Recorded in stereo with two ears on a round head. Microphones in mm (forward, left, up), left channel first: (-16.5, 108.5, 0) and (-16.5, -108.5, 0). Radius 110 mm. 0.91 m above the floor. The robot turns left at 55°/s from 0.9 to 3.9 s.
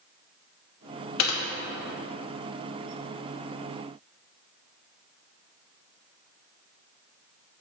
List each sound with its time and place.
1.2 s typing on a keyboard: 70° left (ahead or behind), 1.1 m; by 1.4 s 60° left (ahead or behind), 1.1 m